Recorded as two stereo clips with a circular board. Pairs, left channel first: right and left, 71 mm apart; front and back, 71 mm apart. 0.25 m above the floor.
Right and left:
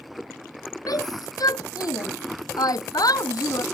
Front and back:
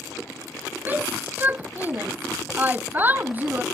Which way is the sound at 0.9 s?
115° right.